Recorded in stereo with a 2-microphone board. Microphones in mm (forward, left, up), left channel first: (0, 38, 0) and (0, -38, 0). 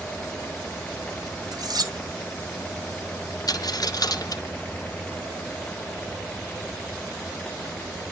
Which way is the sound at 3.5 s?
55° left (ahead or behind).